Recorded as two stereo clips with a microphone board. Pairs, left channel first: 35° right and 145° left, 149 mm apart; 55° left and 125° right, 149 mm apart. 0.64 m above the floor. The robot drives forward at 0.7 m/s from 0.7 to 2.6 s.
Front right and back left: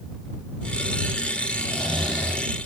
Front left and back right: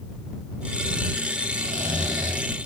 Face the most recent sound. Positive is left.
turn(degrees=-140)